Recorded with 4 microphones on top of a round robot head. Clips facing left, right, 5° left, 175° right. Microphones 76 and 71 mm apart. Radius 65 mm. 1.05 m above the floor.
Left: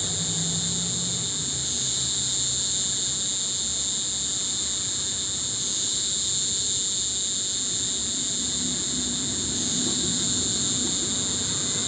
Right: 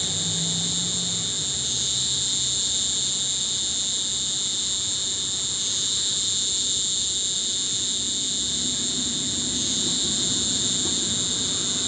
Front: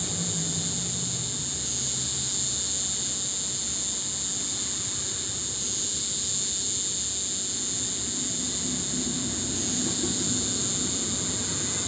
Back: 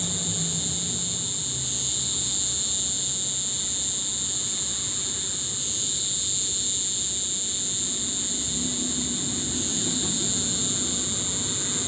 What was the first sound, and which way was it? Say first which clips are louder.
An insect: even, back 1 dB; 75° right.